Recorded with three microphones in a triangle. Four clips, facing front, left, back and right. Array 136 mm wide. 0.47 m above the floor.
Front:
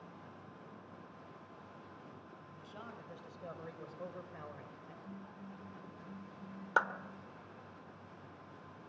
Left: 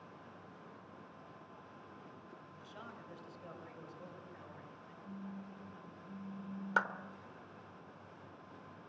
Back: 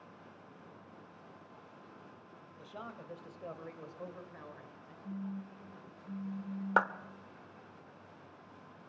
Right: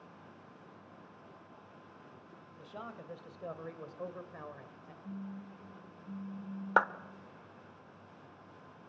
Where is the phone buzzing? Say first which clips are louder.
Right 3 dB, back 11 dB; 135° right, 3 m.